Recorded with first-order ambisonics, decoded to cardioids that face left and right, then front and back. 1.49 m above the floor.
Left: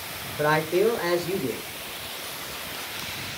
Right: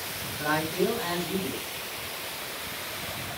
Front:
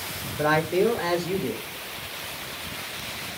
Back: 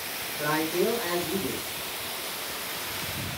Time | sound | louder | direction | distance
0.4 | a man speaking | left 6 dB, front 5 dB | 55° left | 1.1 m